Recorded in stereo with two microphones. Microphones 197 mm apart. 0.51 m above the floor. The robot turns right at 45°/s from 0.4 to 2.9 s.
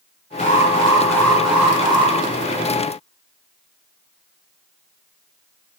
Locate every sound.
0.4 s an alarm: 135° left, 3 m; by 2.1 s 145° right, 3 m